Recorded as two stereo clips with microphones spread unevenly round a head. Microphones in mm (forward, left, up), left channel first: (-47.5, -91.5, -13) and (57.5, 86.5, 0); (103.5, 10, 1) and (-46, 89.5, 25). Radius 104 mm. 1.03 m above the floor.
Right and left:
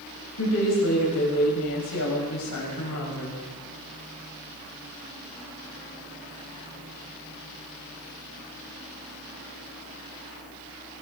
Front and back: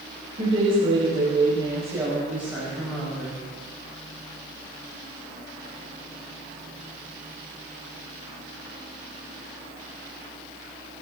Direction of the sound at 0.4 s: 145° right.